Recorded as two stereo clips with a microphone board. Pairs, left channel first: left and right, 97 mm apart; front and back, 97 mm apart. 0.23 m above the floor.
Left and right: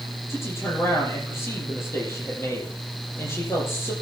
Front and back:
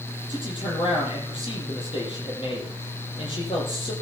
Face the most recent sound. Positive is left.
turn(degrees=25)